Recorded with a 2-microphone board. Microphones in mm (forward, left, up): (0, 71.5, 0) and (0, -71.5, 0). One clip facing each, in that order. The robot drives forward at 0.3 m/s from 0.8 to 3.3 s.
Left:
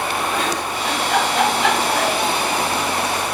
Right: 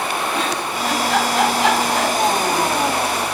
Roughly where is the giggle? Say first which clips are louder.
Even; right.